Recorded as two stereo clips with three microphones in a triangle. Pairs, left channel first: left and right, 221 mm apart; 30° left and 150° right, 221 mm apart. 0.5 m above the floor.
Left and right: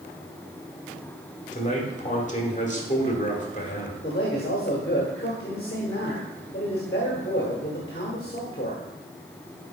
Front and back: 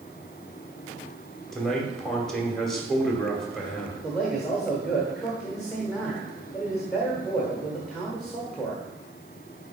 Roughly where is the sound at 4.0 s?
Behind left.